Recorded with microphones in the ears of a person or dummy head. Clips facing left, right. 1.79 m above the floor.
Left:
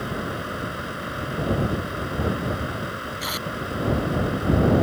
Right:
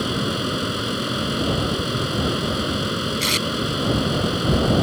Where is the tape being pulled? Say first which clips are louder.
Right 7 dB; 35° right (ahead or behind).